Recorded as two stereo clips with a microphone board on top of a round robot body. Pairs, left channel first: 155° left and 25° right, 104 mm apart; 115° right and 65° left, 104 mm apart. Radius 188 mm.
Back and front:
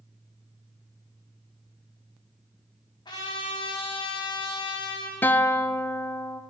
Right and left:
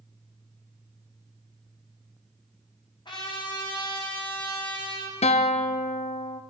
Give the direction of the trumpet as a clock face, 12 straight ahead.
5 o'clock.